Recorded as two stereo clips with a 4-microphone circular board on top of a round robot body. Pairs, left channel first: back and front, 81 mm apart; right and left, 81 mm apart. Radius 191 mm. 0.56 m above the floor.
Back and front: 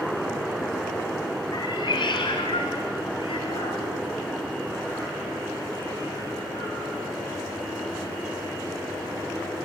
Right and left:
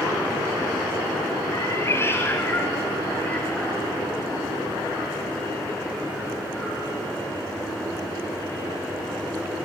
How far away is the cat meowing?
About 1.0 m.